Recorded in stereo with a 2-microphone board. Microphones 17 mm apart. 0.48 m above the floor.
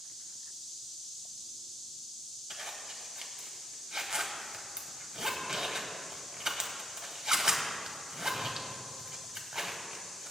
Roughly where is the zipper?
Right.